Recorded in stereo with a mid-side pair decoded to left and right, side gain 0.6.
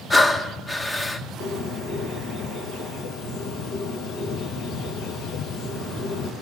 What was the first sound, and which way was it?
Breathing, 15° left.